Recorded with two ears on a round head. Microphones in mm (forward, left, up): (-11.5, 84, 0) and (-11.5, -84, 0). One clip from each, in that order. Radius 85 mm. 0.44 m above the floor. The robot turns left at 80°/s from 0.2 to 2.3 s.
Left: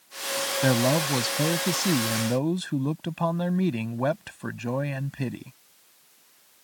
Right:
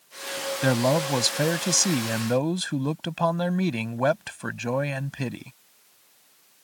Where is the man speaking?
10° right; by 5.5 s 140° right.